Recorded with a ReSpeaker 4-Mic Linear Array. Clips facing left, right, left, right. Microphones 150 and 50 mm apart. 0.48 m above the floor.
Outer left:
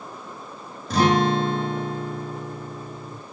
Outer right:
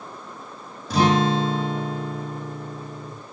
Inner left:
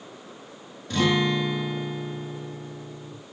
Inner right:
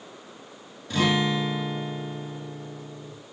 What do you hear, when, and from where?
0.9 s a guitar: centre (ahead or behind), 3.5 m